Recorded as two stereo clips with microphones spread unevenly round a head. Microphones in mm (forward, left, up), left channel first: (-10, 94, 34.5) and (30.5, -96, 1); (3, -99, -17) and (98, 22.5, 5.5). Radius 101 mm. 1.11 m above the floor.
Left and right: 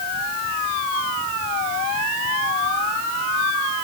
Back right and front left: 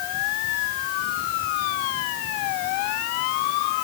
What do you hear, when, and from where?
Only background noise.